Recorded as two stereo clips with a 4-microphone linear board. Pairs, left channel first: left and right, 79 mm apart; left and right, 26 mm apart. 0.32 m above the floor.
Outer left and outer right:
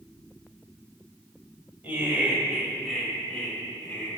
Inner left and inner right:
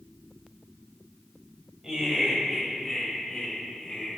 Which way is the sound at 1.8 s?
30° right (ahead or behind).